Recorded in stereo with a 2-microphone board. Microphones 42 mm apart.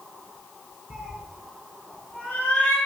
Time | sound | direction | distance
0.9 | a cat meowing | 10° right (ahead or behind) | 1.5 m